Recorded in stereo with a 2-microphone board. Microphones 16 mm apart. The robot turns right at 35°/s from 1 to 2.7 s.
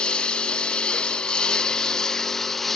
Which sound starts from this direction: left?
A lawn mower, at 0.0 s.